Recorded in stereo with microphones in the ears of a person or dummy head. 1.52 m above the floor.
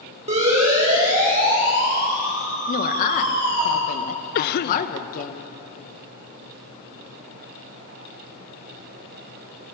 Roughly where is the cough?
Left.